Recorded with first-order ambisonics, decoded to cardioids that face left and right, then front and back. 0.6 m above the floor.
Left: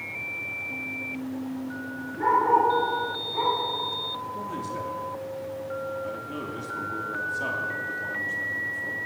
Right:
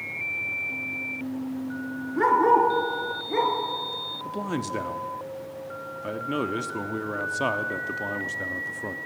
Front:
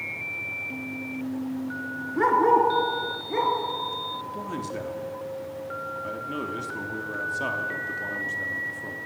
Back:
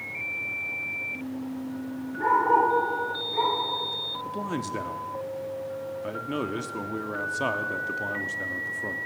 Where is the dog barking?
40° right, 2.5 m; by 3.5 s 55° right, 3 m.